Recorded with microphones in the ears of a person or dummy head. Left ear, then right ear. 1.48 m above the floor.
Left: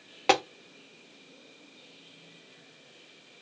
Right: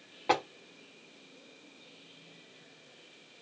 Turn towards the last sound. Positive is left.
turn(degrees=50)  # may be behind; listen again after turning